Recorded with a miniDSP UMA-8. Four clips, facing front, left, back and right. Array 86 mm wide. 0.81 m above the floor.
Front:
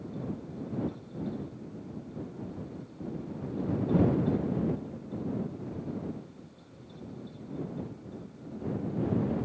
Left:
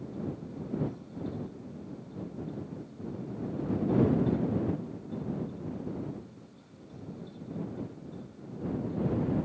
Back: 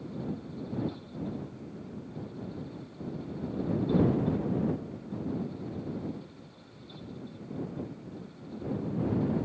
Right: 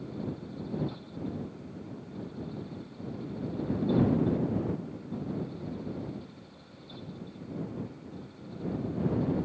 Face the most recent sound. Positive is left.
No sound to turn to.